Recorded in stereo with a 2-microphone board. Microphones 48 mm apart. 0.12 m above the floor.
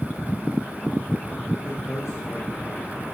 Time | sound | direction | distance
1.6 | a man speaking | 75° left (ahead or behind) | 5.5 m